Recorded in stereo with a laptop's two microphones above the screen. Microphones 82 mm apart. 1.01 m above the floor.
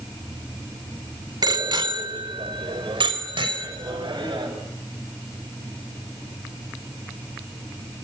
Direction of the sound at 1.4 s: 60° right (ahead or behind).